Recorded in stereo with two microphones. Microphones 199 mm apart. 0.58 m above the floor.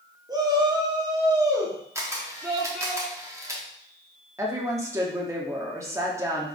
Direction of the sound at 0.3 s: 20° right (ahead or behind).